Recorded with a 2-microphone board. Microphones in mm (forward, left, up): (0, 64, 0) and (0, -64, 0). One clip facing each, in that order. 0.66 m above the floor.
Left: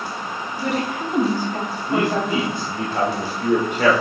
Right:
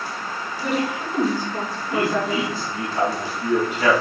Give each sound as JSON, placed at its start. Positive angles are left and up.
{"t": 0.6, "sound": "a woman speaking", "side_deg": 60, "distance_m": 4.0}
{"t": 1.9, "sound": "a man speaking", "side_deg": 60, "distance_m": 2.0}